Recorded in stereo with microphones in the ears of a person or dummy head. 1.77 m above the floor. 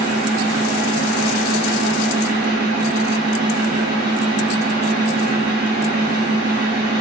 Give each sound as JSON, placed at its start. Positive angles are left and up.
{"t": 0.0, "sound": "a fan", "side_deg": -60, "distance_m": 1.5}